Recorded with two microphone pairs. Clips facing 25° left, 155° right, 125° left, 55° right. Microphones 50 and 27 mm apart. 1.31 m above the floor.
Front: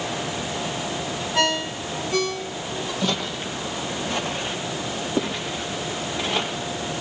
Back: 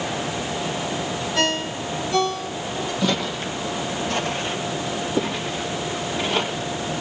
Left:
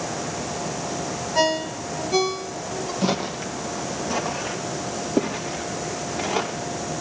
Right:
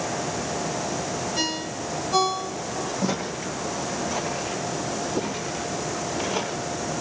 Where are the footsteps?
110° left, 2 m; by 6.6 s 100° left, 6.5 m.